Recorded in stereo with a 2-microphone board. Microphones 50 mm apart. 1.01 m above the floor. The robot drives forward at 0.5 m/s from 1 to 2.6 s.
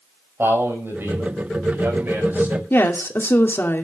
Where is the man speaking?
55° right (ahead or behind), 5 m; by 2.6 s 45° right (ahead or behind), 6 m.